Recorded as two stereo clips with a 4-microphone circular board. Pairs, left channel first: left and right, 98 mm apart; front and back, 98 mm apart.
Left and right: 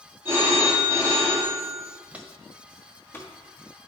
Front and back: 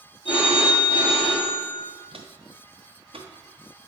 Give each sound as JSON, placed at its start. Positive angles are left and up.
{"t": 0.2, "sound": "a phone ringing", "azimuth_deg": -25, "distance_m": 2.5}
{"t": 2.1, "sound": "footsteps", "azimuth_deg": -165, "distance_m": 0.7}